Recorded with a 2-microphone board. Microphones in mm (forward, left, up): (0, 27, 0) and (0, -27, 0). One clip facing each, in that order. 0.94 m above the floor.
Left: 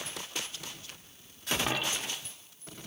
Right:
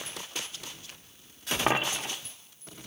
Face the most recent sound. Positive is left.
turn(degrees=-40)  # may be behind; listen again after turning